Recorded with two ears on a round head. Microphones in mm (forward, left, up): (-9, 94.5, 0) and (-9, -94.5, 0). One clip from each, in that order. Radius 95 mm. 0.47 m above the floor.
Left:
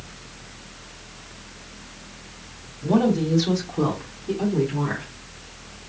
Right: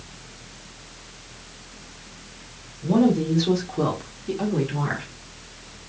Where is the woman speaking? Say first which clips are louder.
Even; 35° left (ahead or behind), 1.3 m; by 5.0 s 35° right (ahead or behind), 1.5 m.